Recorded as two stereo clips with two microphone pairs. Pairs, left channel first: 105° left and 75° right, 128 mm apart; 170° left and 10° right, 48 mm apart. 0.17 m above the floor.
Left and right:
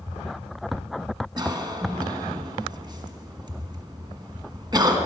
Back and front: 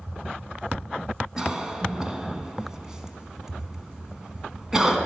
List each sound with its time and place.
1.4 s a cough: 75° right, 1.2 m